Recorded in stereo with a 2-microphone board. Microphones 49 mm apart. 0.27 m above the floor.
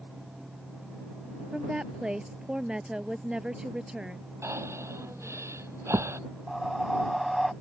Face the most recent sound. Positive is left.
turn(degrees=0)  # may be behind; listen again after turning